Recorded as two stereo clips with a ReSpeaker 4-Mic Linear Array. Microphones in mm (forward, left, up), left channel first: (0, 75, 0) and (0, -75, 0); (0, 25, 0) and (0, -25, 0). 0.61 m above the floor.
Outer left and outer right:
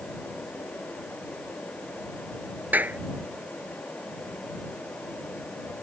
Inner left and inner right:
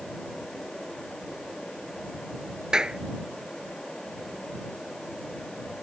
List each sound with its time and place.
2.7 s a clap: 10° right (ahead or behind)